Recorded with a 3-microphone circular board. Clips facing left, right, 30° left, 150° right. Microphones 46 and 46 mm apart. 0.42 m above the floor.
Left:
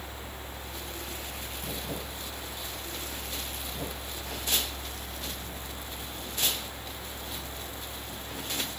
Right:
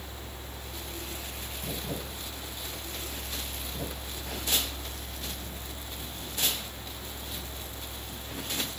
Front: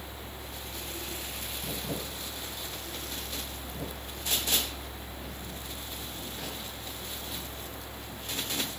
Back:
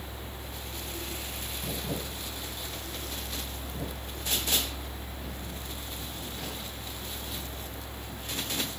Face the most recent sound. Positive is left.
No sound to turn to.